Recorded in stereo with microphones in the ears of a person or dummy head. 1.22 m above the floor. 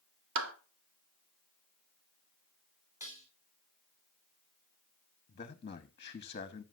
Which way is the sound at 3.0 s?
15° right (ahead or behind).